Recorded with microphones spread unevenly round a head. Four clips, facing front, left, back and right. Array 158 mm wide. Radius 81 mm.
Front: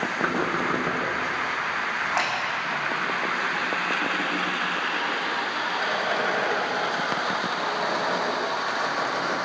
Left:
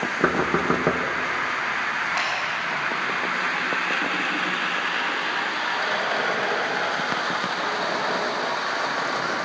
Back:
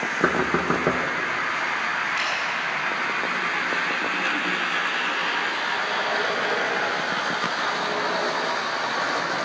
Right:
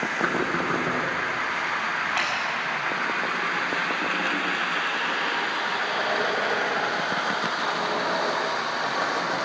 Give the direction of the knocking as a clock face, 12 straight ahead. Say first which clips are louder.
Left 5 dB, back 5 dB; 8 o'clock.